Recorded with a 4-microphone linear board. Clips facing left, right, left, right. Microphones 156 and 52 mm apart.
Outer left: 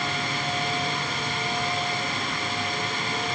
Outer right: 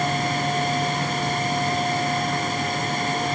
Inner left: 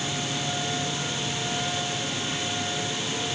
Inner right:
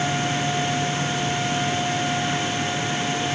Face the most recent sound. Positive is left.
No sound to turn to.